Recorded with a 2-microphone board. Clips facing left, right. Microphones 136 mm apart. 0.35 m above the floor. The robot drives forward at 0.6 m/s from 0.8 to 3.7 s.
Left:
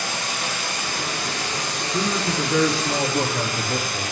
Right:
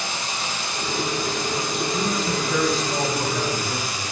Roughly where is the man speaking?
Left.